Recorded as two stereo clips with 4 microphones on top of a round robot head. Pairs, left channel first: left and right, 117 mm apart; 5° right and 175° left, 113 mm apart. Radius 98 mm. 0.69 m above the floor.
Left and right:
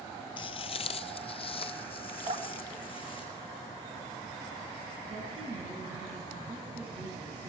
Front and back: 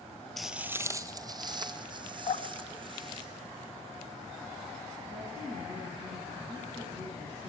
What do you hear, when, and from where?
0.4 s footsteps: 80° left, 0.7 m; by 3.3 s 135° left, 3 m
2.3 s dripping: 50° right, 2.5 m
5.1 s a woman speaking: 135° right, 5.5 m